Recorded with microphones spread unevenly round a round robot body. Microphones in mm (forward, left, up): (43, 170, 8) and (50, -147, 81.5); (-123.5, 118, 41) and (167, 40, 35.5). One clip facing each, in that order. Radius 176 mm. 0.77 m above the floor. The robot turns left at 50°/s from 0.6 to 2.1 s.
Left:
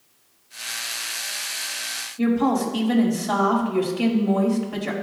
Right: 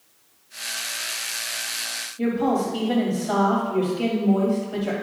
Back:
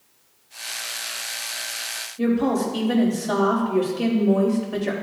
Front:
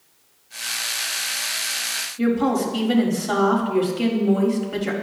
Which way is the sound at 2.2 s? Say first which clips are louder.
Left 2 dB, front 1 dB; 60° left.